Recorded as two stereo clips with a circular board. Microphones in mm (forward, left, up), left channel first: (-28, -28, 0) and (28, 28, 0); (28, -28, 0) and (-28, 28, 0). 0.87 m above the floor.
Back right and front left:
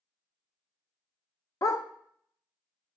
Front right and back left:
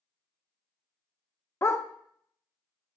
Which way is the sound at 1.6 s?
95° right.